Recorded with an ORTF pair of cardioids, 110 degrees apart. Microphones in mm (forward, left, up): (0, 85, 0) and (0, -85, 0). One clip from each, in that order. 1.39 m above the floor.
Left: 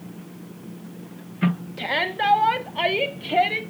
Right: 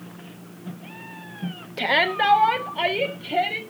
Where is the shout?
30° right, 1.2 m; by 3.6 s 25° left, 2 m.